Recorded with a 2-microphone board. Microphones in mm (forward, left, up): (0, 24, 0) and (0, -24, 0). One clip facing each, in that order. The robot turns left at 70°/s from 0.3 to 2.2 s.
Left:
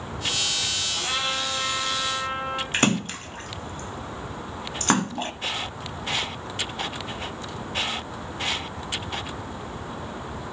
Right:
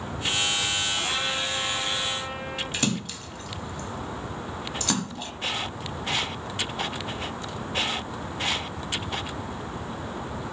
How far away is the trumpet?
About 7 m.